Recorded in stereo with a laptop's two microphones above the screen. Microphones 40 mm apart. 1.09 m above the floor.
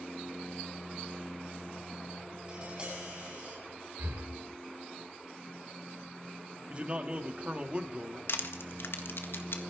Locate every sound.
2.5 s tapping: 25° right (ahead or behind), 7 m
4.0 s breathing: 65° right (ahead or behind), 1.9 m
6.7 s a man speaking: 30° right (ahead or behind), 1.6 m
8.3 s crushing: 70° left (ahead or behind), 1.7 m